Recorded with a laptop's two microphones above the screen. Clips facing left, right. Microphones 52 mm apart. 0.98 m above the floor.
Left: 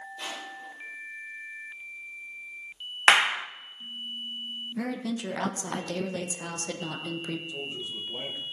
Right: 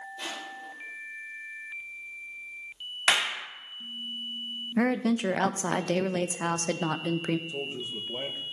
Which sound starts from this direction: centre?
Crushing, at 0.2 s.